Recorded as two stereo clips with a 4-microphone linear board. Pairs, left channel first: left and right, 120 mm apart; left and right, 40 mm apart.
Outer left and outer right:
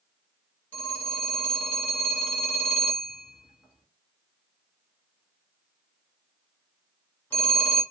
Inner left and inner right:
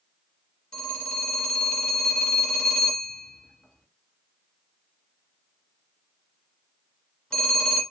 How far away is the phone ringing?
About 2.0 m.